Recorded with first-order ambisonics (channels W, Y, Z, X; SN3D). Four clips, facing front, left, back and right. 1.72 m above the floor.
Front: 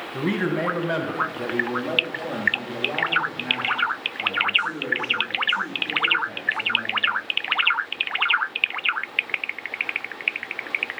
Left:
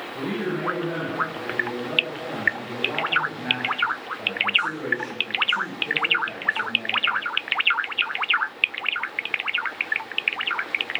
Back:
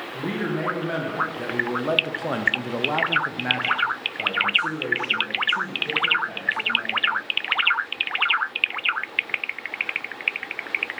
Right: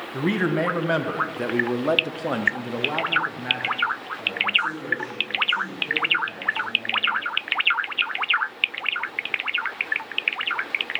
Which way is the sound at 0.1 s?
70° right.